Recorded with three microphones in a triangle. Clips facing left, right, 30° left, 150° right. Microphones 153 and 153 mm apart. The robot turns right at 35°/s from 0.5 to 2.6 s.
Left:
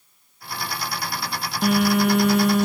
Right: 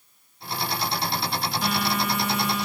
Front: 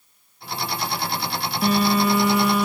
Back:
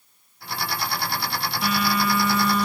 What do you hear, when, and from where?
1.6 s a phone buzzing: 75° left, 1.0 m; by 2.7 s 110° left, 1.0 m